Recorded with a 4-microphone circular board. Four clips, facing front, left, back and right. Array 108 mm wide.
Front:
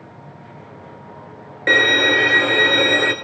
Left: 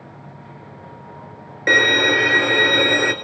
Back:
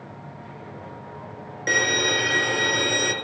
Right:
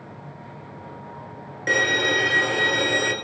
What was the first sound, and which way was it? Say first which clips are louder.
A violin: left 5 dB, front 7 dB; 55° left.